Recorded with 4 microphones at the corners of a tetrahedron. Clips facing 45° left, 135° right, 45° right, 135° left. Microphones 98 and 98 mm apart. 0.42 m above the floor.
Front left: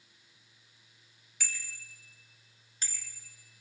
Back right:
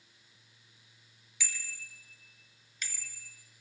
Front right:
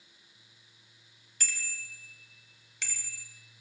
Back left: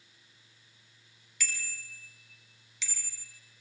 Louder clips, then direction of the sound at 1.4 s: Even, back left 1 dB; 5° left.